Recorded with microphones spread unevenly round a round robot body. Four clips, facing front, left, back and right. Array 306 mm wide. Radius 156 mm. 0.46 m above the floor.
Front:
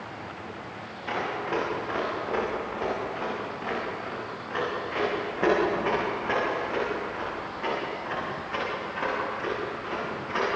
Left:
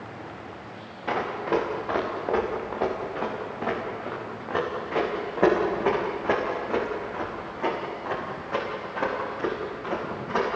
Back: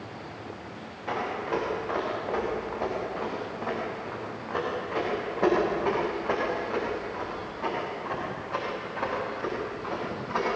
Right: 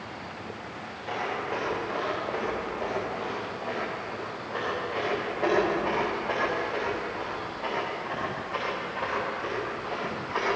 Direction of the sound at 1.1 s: 85° left.